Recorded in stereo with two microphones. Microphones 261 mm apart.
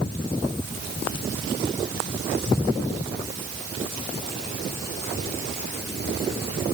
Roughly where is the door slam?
I don't hear a door slam.